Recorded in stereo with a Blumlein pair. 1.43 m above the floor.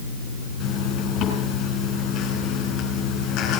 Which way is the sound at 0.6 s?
30° left.